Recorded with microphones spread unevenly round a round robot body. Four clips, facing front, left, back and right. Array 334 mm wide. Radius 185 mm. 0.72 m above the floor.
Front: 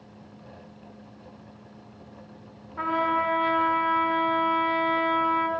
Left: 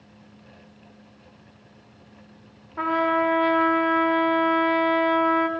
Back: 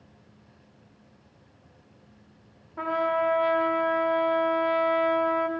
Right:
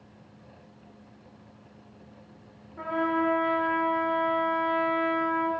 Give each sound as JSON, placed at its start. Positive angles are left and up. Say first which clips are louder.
{"t": 2.8, "sound": "a trumpet", "louder": "left 5 dB, even", "azimuth_deg": 90, "distance_m": 0.8}